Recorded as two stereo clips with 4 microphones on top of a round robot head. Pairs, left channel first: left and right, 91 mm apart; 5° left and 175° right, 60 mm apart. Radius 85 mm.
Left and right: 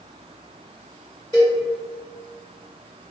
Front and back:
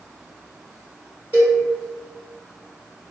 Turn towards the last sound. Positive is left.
turn(degrees=-130)